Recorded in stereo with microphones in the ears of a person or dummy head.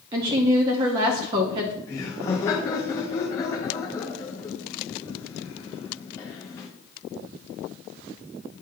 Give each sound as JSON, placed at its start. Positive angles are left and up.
{"t": 0.1, "sound": "a woman speaking", "side_deg": -20, "distance_m": 0.5}
{"t": 1.9, "sound": "laughter", "side_deg": 15, "distance_m": 0.5}